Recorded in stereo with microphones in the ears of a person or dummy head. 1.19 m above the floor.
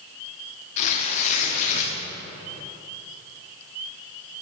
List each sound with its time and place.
0.8 s tearing paper: 40° left (ahead or behind), 0.9 m